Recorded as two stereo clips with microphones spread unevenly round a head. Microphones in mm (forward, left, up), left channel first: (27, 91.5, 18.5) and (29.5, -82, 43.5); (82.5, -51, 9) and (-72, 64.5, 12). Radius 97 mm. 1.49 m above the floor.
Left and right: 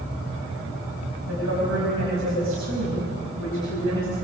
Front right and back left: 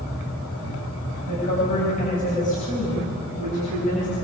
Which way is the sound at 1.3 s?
90° right.